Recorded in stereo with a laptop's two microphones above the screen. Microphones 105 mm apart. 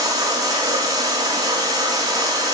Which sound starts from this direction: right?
Running water, at 0.0 s.